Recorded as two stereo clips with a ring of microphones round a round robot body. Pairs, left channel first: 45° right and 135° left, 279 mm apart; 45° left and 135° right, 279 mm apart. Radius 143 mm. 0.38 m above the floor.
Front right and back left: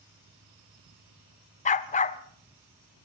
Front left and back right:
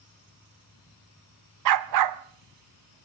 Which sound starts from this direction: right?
A dog barking, at 1.6 s.